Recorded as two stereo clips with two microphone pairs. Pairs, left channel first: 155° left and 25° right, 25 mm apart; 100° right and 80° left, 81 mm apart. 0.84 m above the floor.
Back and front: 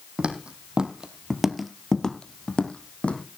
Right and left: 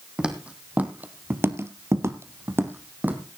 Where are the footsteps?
5° left, 1.9 m; by 3.2 s 145° left, 2.0 m.